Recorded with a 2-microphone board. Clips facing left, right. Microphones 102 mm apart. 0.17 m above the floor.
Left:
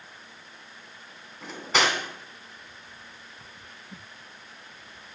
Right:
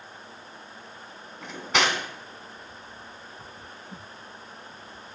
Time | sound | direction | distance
1.4 | cutlery clinking | centre (ahead or behind) | 0.7 m